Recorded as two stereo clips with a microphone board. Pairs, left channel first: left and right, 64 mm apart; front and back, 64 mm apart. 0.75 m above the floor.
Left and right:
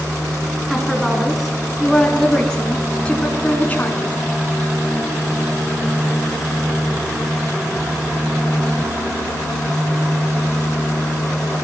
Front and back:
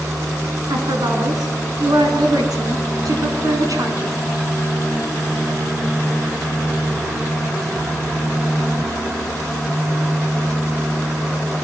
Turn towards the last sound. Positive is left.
turn(degrees=155)